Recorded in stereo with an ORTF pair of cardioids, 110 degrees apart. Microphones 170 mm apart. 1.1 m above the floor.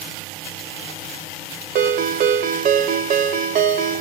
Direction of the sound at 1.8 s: 55° right.